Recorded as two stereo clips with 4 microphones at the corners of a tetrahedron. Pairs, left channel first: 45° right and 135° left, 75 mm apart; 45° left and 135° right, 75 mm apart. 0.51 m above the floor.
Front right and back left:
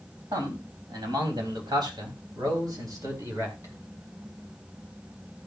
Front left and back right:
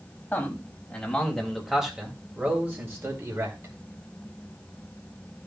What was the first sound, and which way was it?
A man speaking, 115° left.